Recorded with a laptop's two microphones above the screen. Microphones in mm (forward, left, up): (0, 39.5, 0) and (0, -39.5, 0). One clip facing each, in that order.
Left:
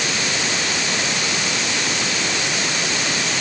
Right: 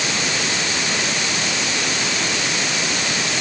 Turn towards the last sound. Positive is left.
No sound to turn to.